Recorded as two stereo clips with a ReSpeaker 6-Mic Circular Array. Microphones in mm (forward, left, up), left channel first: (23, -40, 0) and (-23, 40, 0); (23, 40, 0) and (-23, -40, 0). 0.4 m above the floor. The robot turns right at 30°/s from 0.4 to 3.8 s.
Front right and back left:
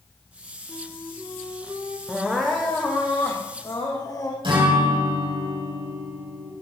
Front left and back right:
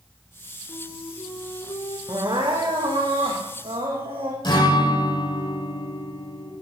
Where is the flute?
20° left, 3.5 m; by 2.0 s 60° left, 3.5 m.